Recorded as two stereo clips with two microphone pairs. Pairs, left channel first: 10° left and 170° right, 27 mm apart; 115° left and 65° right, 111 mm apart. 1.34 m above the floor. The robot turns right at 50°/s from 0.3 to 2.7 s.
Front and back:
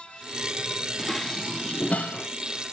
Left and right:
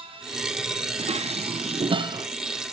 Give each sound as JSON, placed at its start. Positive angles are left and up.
{"t": 1.0, "sound": "dishes clattering", "azimuth_deg": -75, "distance_m": 0.7}